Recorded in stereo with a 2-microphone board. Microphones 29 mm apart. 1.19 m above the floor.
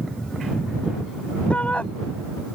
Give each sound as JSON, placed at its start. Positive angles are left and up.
{"t": 1.5, "sound": "a shout", "side_deg": 50}